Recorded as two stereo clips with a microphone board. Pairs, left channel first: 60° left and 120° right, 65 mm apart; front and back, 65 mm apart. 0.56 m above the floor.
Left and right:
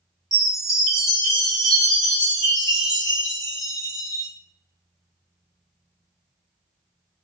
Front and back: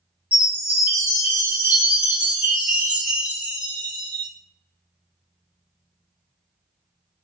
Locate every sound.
0.3 s a chime: 160° left, 1.4 m